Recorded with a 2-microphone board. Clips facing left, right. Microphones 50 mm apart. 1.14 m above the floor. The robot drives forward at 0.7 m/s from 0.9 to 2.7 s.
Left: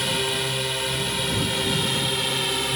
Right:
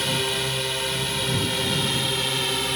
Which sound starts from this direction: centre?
A drone, at 0.0 s.